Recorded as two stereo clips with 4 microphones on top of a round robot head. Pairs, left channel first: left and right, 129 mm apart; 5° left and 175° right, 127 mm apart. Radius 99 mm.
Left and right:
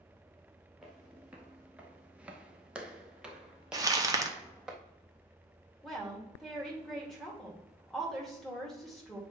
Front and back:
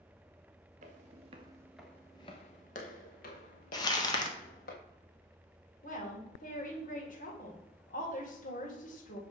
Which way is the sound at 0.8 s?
175° right.